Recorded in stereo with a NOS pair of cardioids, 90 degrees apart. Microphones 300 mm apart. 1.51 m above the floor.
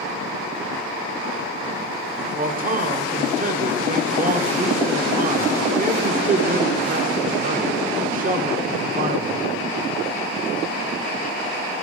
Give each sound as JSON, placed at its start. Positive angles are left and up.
{"t": 2.4, "sound": "a man speaking", "azimuth_deg": -30, "distance_m": 1.3}